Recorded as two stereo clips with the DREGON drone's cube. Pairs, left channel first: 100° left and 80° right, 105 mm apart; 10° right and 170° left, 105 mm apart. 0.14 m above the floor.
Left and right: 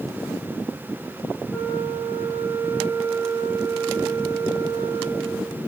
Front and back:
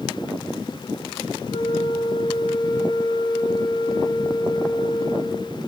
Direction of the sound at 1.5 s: 15° left.